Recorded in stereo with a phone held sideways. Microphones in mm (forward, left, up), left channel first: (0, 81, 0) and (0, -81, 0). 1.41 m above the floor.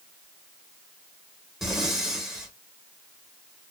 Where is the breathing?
Centre (ahead or behind), 1.5 m.